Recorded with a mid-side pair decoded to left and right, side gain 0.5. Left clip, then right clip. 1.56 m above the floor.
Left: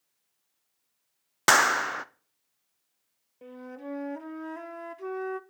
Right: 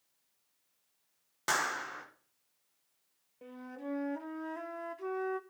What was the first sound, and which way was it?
A clap, 70° left.